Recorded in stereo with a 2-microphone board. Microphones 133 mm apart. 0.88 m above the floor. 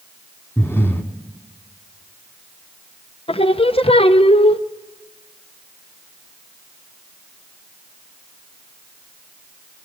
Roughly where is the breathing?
Centre.